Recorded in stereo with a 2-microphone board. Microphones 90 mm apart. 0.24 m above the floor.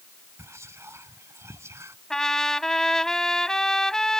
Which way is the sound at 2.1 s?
5° left (ahead or behind).